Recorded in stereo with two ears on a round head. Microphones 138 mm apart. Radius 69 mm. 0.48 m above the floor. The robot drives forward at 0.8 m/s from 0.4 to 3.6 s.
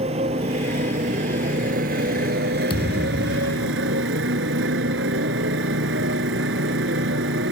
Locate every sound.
0.0 s a motorcycle: 40° right (ahead or behind); by 7.5 s 85° right
2.7 s a thud: 30° left (ahead or behind); by 3.7 s 45° left (ahead or behind)